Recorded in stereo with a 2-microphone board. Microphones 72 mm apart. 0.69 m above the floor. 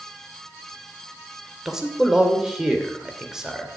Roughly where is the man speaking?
Centre.